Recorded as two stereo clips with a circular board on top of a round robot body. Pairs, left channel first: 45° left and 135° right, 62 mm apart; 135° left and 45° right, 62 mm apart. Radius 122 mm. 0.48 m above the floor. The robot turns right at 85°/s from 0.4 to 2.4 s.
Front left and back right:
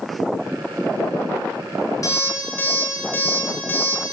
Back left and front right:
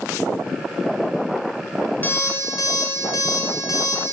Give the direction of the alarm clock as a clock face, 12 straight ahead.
10 o'clock.